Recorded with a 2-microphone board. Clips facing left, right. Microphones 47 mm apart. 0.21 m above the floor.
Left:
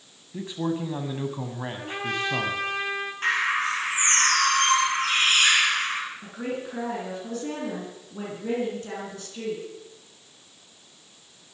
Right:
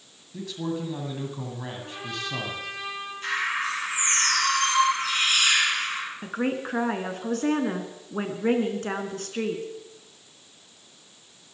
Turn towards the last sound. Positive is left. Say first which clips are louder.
# right 4 dB
turn(degrees=-55)  # may be behind; listen again after turning